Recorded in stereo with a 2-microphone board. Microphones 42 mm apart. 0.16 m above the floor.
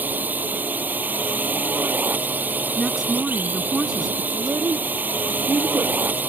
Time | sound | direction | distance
0.0 | a drone | 45° right (ahead or behind) | ?
2.8 | a woman speaking | 10° right (ahead or behind) | ?
4.3 | a child speaking | 70° right (ahead or behind) | ?